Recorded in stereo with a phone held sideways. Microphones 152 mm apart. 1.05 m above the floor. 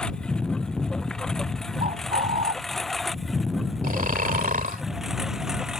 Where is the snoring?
70° right (ahead or behind).